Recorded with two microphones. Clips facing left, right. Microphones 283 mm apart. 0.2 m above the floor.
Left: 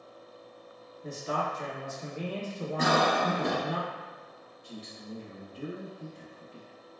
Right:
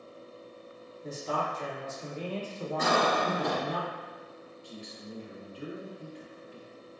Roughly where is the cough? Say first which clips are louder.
Left 1 dB; left.